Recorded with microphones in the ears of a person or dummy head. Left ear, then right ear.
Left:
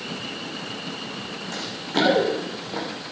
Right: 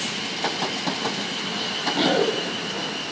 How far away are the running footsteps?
About 5.5 m.